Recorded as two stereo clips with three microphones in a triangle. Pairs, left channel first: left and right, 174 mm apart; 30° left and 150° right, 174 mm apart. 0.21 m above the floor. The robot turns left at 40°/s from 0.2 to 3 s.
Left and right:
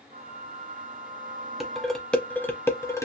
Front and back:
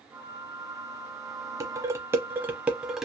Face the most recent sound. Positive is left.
turn(degrees=125)